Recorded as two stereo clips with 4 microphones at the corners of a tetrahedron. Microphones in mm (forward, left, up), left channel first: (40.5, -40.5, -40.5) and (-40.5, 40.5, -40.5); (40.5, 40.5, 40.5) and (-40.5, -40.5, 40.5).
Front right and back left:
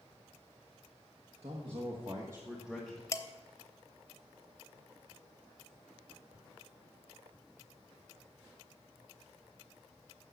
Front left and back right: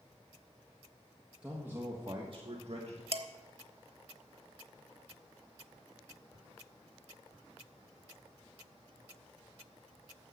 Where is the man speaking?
145° left, 1.7 m; by 3.0 s 130° right, 1.7 m.